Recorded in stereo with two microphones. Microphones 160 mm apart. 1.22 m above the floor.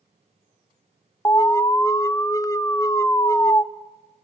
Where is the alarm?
20° left (ahead or behind), 0.6 m.